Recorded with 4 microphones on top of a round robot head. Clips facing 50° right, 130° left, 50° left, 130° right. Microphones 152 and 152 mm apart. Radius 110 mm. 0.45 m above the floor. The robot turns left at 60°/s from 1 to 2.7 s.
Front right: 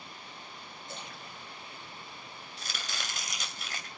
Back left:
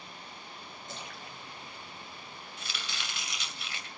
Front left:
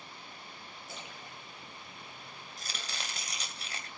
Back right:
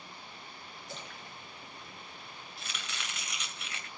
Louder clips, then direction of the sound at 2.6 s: Front right 2 dB, front left 1 dB; 5° left.